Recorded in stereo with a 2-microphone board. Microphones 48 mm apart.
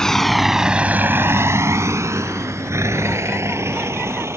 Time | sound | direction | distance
0.0 | a vehicle | 10° left (ahead or behind) | ?